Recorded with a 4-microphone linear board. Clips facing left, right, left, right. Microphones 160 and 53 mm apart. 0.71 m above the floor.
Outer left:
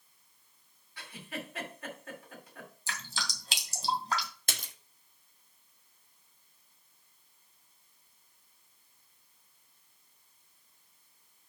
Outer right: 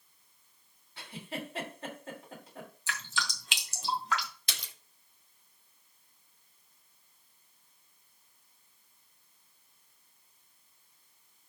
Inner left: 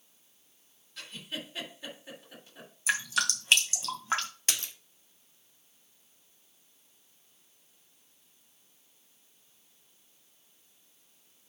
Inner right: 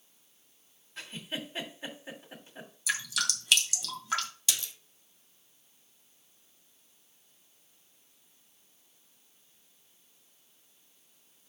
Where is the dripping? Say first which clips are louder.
Outer right 3 dB, inner left 4 dB; 35° left (ahead or behind), 2 m.